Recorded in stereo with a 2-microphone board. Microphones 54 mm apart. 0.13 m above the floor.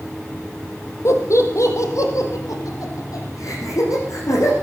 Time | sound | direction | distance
1.1 | laughter | 55° left (ahead or behind) | 4 m